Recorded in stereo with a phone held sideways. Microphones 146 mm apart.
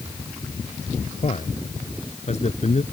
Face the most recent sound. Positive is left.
turn(degrees=50)  # may be behind; listen again after turning